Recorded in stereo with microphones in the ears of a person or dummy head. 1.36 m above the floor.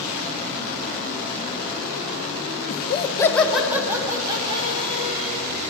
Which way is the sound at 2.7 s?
50° left (ahead or behind).